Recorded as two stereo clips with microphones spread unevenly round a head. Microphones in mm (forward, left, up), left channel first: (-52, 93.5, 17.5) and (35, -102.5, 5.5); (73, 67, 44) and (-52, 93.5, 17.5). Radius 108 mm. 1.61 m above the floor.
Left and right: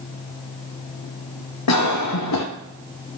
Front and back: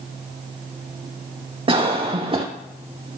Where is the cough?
120° left, 0.9 m.